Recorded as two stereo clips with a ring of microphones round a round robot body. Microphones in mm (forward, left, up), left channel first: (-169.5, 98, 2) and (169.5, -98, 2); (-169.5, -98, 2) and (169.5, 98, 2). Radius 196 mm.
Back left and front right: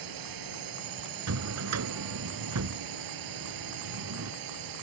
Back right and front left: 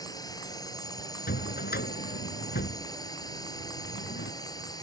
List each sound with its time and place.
0.0 s a drone: 70° right
1.3 s a drawer: 80° right